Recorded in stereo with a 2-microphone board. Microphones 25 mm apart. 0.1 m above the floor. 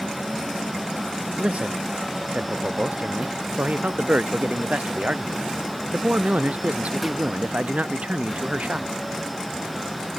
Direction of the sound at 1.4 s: 80° right.